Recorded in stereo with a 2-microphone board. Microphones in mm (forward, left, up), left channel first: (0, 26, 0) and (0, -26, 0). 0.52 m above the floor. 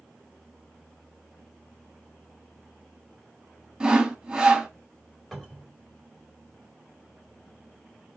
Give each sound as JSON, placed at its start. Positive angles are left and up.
{"t": 3.8, "sound": "sawing", "side_deg": -15, "distance_m": 1.0}
{"t": 5.3, "sound": "a cupboard door", "side_deg": 0, "distance_m": 2.5}